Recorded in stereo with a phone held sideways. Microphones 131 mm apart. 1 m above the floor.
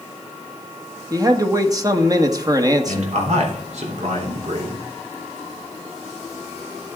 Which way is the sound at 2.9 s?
65° right (ahead or behind).